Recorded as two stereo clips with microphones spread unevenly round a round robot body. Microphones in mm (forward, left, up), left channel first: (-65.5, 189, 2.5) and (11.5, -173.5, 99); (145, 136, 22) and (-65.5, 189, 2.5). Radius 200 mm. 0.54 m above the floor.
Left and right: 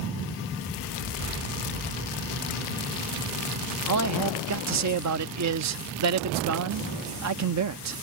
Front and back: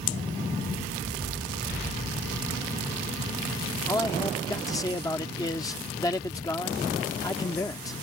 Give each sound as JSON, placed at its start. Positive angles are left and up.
{"t": 3.9, "sound": "a man speaking", "azimuth_deg": -80}